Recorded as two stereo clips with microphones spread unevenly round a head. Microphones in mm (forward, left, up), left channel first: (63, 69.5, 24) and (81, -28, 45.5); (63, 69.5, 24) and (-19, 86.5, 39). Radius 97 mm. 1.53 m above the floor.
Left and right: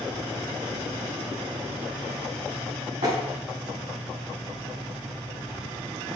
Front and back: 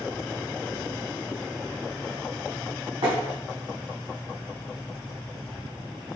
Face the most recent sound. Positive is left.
turn(degrees=-135)